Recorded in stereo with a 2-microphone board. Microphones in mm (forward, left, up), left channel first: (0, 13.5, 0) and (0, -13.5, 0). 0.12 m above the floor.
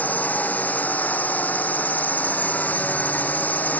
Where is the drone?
70° left (ahead or behind).